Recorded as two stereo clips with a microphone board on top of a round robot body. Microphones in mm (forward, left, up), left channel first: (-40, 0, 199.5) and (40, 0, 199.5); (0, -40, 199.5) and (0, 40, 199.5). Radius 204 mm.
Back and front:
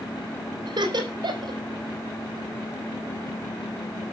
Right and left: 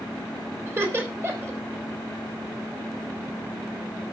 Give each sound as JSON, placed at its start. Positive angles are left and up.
{"t": 0.7, "sound": "laughter", "azimuth_deg": 30, "distance_m": 4.0}